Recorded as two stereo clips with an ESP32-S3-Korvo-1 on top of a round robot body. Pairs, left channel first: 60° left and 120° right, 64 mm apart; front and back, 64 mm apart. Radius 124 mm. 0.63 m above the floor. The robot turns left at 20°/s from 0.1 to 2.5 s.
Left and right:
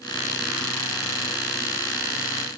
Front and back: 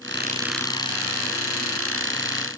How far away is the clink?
No clink in this recording.